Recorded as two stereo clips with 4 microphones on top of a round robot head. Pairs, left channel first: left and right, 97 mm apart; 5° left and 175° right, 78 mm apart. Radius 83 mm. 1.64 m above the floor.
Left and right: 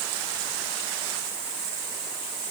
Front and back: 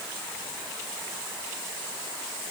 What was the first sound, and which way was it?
Only background noise.